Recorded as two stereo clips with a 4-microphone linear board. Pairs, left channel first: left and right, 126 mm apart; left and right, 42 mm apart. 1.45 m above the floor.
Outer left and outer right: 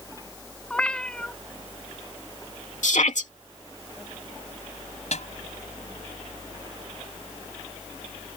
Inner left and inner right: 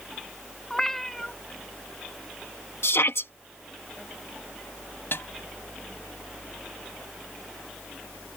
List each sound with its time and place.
0.7 s a cat meowing: 10° left (ahead or behind)
2.8 s a shout: 70° left (ahead or behind)
5.1 s a snare drum: 65° left (ahead or behind)